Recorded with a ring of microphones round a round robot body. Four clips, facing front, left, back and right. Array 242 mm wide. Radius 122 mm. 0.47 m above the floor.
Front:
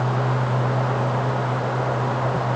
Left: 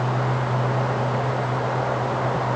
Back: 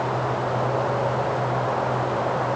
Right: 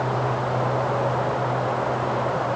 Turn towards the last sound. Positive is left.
No sound to turn to.